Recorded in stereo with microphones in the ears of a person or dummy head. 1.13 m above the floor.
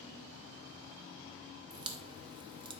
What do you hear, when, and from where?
1.7 s a crack: 30° right (ahead or behind), 0.8 m